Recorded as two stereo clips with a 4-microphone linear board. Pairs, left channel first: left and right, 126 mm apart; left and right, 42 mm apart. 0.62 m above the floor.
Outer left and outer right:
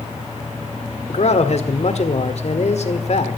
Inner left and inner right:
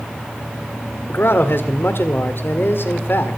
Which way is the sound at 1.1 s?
60° left (ahead or behind).